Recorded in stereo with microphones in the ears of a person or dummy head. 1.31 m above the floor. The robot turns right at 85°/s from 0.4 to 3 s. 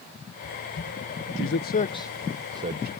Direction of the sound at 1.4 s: 65° left (ahead or behind).